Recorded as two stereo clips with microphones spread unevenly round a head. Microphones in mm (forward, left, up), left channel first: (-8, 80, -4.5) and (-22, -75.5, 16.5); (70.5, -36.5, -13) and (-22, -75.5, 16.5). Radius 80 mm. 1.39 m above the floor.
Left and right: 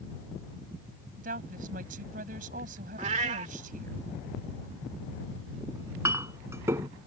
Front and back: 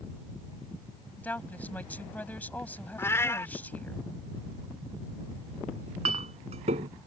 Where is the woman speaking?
55° right.